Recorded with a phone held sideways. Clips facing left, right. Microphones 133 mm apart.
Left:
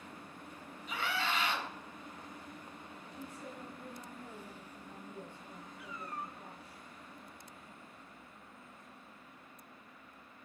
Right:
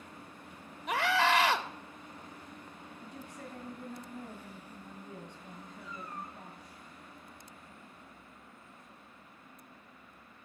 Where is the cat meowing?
65° left (ahead or behind), 2 m.